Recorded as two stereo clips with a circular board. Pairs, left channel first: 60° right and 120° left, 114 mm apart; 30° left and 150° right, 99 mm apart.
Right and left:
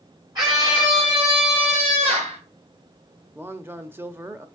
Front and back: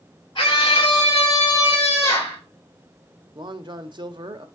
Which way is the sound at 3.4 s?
175° right.